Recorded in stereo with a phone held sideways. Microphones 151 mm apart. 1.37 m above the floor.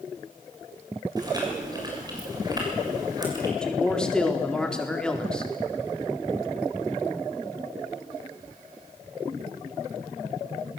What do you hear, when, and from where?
1.2 s chewing: 25° right (ahead or behind), 7 m
3.6 s a man speaking: 5° left (ahead or behind), 3.5 m